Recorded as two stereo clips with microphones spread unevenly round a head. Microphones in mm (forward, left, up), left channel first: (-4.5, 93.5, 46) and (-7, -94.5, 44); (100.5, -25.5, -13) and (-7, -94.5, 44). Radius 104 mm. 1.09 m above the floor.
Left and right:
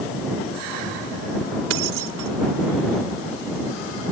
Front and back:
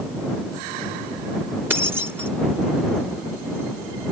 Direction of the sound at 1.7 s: 75° right.